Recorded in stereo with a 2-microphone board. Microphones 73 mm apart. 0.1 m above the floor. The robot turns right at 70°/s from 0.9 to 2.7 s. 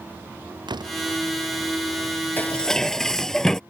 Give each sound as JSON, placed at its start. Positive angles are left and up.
{"t": 0.7, "sound": "a door slam", "side_deg": -80}
{"t": 2.4, "sound": "dishes clattering", "side_deg": 25}